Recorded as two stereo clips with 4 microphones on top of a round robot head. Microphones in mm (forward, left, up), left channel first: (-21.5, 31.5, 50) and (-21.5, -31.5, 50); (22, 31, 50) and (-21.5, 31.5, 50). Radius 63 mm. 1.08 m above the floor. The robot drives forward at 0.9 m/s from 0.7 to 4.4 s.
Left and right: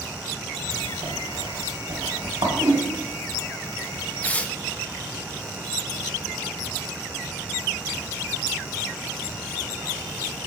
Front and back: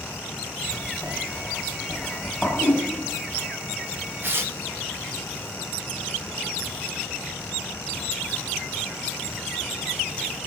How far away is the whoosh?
About 6.5 m.